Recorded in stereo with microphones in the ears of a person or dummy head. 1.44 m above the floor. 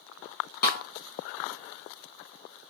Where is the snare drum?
45° left (ahead or behind), 1.0 m.